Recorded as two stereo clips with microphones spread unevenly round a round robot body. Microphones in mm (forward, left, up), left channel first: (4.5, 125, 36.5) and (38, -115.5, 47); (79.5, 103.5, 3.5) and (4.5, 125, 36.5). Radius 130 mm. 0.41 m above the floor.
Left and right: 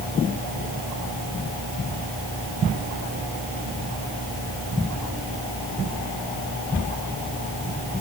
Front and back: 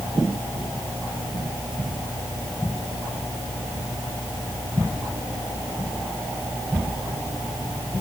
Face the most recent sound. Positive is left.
No sound to turn to.